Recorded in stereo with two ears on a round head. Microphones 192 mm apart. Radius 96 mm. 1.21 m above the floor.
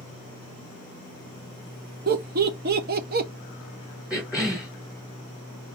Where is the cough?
5° right (ahead or behind), 0.7 m.